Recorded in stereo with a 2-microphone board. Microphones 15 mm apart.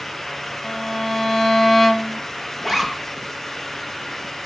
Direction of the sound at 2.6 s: 20° left (ahead or behind).